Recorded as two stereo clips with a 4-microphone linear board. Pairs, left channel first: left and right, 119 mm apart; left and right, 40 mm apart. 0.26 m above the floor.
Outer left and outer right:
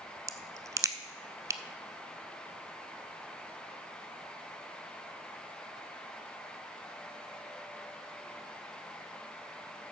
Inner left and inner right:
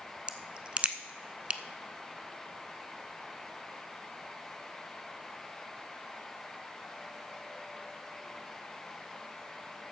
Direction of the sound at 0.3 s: 30° right (ahead or behind).